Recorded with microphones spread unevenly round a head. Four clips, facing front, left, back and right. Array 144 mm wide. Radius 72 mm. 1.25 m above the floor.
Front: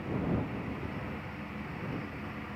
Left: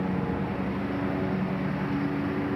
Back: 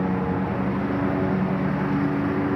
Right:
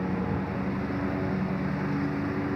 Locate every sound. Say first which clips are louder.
0.0 s a lawn mower: left 1 dB, back 9 dB; 175° left